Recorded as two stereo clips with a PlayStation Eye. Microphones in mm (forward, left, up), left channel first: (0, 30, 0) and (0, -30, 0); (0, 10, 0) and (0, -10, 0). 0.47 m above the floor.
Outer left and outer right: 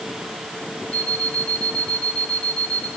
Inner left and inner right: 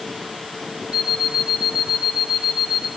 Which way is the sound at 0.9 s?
75° right (ahead or behind).